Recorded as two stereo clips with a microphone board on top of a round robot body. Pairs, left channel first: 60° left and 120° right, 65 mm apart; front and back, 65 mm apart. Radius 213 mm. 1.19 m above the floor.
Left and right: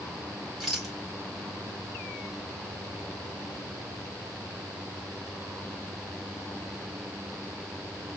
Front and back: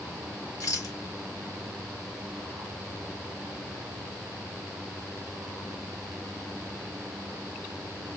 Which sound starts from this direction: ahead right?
A rattle, at 0.6 s.